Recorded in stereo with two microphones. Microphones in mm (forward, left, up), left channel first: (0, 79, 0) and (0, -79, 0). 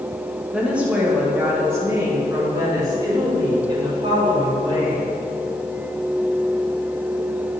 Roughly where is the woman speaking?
Centre.